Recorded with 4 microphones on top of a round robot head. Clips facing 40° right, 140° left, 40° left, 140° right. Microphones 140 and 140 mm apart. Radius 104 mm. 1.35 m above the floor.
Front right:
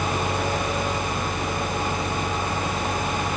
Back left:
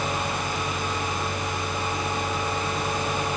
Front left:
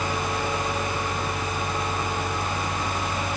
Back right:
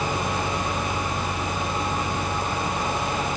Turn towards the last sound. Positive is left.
No sound to turn to.